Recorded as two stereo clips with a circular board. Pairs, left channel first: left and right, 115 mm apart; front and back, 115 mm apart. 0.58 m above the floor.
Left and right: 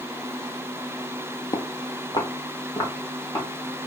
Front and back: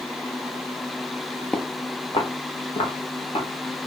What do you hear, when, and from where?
1.5 s footsteps: 85° left, 0.7 m; by 3.5 s 30° left, 3.5 m